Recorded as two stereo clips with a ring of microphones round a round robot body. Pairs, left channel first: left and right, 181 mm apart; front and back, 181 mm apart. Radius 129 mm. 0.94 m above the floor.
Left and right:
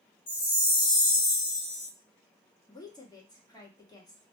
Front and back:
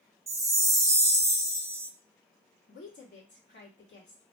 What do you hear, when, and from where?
0.3 s a chime: 115° left, 0.7 m
2.7 s a woman speaking: 20° left, 1.5 m